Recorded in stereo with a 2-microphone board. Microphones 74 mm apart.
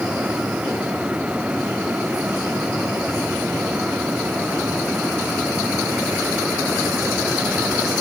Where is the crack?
No crack in this recording.